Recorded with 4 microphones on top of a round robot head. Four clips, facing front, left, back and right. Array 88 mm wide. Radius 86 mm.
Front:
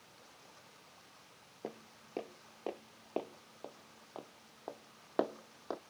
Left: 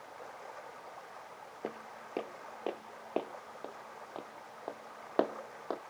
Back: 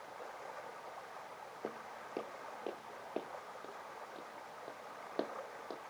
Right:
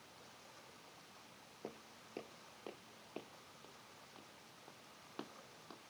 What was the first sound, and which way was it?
Running water, 135° left.